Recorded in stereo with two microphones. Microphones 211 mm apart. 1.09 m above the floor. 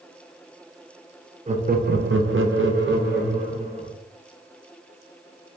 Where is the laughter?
35° right (ahead or behind), 0.6 m; by 3.9 s 45° right (ahead or behind), 1.2 m.